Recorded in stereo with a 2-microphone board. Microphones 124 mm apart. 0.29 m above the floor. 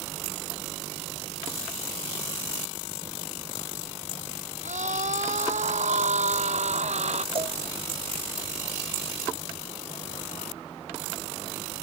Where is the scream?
75° right (ahead or behind); by 7.2 s 65° right (ahead or behind).